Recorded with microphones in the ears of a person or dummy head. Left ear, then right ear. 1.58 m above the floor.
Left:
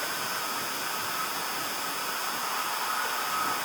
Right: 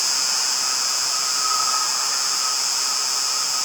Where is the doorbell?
No doorbell in this recording.